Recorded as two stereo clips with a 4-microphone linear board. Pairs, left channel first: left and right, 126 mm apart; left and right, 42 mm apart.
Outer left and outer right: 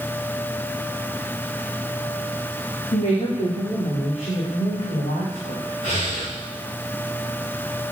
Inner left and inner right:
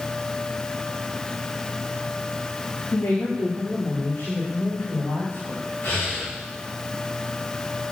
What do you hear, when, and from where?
2.9 s a woman speaking: 80° left, 8.5 m; by 5.7 s 70° left (ahead or behind), 9 m
5.8 s breathing: 75° left (ahead or behind), 9 m